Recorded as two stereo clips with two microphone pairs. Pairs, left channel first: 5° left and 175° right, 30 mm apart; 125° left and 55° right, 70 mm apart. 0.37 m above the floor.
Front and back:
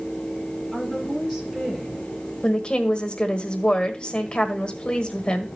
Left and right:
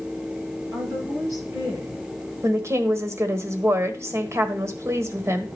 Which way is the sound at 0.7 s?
95° right.